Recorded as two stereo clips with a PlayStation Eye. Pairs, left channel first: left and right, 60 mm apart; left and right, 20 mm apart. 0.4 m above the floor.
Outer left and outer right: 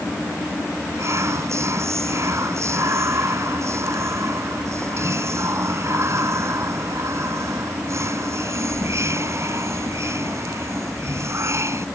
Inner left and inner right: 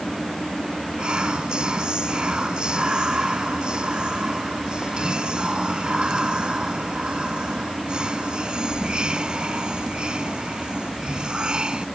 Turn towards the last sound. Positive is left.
turn(degrees=-50)  # may be behind; listen again after turning